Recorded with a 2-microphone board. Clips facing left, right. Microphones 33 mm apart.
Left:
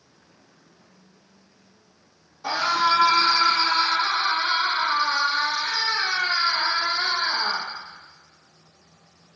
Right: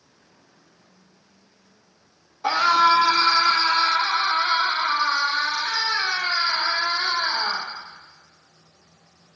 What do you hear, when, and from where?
2.4 s a scream: 35° right (ahead or behind), 1.7 m; by 7.7 s 5° right (ahead or behind), 6.5 m